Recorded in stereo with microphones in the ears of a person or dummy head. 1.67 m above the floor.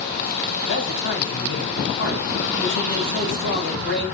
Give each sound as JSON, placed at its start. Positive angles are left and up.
{"t": 0.7, "sound": "a man speaking", "side_deg": 65, "distance_m": 2.5}